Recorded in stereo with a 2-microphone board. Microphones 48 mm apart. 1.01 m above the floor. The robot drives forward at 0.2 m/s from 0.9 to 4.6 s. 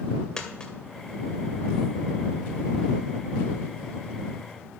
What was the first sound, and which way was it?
A dropped coin, 15° left (ahead or behind).